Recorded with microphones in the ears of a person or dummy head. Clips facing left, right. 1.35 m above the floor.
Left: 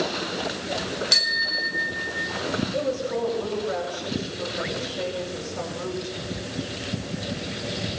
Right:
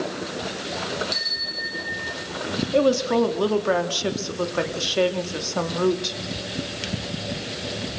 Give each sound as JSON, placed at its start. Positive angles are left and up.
{"t": 1.1, "sound": "a bicycle bell", "side_deg": 75, "distance_m": 4.0}
{"t": 2.7, "sound": "a woman speaking", "side_deg": -85, "distance_m": 2.5}